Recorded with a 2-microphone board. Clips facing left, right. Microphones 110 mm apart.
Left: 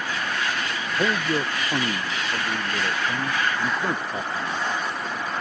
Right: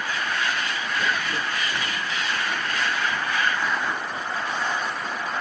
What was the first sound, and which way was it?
A man speaking, 60° left (ahead or behind).